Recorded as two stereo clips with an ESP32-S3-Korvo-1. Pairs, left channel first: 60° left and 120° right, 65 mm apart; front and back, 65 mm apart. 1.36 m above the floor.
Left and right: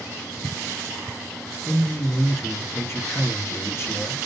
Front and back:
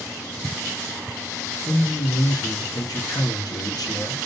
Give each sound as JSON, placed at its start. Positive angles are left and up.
{"t": 1.6, "sound": "a man speaking", "azimuth_deg": 10, "distance_m": 1.8}